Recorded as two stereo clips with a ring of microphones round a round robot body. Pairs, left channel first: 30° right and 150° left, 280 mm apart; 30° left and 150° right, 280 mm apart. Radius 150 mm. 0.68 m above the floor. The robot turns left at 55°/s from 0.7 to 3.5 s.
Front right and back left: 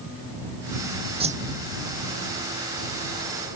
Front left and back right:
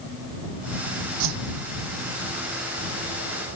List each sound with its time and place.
1.2 s a whoosh: 140° right; by 1.6 s 155° right